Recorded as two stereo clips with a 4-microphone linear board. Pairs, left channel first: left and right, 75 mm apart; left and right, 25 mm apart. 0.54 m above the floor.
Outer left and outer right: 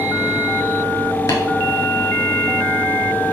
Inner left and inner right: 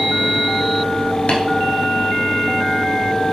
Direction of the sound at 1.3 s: 55° left (ahead or behind).